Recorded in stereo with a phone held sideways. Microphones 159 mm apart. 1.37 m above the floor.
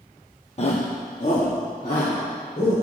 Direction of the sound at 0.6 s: 40° left (ahead or behind).